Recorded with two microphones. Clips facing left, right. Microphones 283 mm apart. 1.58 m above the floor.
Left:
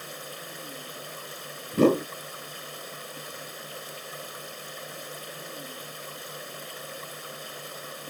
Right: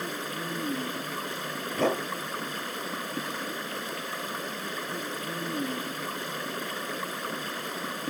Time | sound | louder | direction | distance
0.0 | running water | right 8 dB | 75° right (ahead or behind) | ?
1.7 | a whoosh | left 8 dB | 45° left (ahead or behind) | ?